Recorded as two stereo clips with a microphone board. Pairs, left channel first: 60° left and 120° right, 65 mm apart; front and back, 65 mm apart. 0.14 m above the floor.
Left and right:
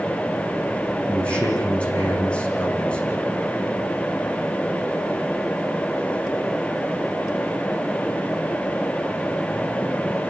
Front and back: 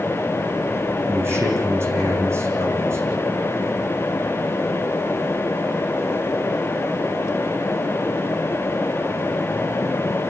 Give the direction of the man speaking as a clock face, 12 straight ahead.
8 o'clock.